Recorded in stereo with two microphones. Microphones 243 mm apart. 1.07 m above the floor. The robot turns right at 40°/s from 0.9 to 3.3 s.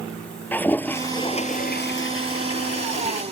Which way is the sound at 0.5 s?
5° left.